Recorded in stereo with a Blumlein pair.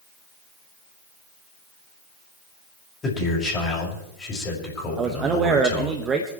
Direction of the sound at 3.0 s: 20° left.